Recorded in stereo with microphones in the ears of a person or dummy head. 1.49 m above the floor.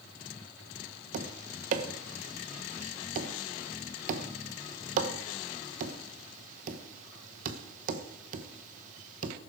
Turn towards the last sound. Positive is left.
turn(degrees=-45)  # may be behind; listen again after turning